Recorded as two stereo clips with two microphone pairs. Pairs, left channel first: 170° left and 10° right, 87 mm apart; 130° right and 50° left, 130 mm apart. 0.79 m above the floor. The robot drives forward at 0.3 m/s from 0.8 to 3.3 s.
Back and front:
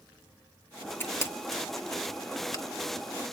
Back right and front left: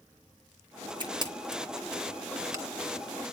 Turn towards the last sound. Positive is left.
turn(degrees=120)